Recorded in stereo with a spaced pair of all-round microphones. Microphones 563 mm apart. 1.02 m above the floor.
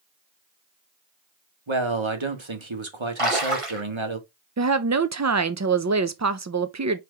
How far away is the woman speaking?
About 0.5 m.